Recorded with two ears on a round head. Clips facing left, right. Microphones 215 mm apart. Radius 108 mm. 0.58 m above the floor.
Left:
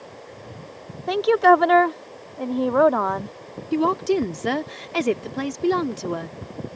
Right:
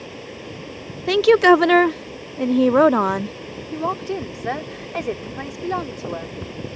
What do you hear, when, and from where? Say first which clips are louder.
0.0 s running water: right 6 dB; 45° right (ahead or behind)
1.1 s a woman speaking: right 4 dB; 35° right (ahead or behind)
3.7 s a woman speaking: left 6 dB; 50° left (ahead or behind)